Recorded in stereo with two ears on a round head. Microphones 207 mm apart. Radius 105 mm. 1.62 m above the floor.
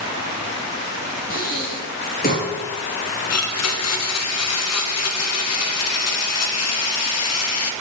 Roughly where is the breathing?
Left.